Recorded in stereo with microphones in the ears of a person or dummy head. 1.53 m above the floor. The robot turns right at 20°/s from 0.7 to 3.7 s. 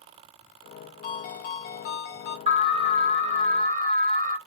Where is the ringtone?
40° left (ahead or behind), 0.5 m; by 2.4 s 45° left (ahead or behind), 0.5 m.